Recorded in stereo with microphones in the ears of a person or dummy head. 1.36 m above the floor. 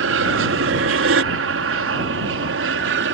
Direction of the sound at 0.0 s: 65° right (ahead or behind).